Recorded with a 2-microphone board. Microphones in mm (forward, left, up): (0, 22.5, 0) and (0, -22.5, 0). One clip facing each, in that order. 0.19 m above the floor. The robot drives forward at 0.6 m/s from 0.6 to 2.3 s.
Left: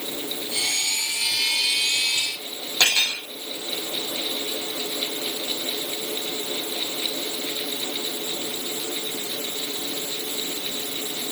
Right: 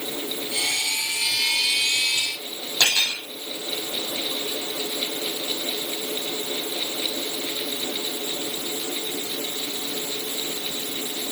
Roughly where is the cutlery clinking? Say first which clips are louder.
Left 1 dB; left.